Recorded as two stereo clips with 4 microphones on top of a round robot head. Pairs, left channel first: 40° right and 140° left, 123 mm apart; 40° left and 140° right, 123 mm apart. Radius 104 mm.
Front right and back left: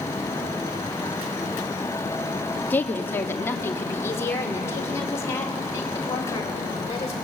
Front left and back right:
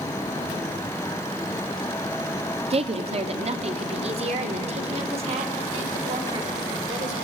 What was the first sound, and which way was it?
A woman speaking, 110° right.